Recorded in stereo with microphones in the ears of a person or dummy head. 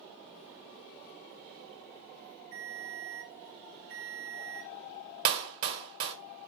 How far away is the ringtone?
About 1.5 m.